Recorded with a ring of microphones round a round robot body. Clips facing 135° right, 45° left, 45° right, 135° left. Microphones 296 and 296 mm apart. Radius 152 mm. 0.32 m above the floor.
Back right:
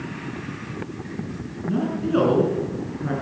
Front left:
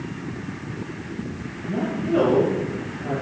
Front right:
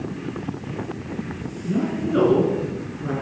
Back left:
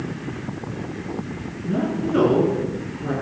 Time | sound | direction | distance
1.6 | a woman speaking | 140° right | 4 m